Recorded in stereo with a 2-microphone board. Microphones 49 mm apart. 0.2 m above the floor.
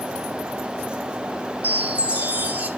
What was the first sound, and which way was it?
A chime, 30° right (ahead or behind).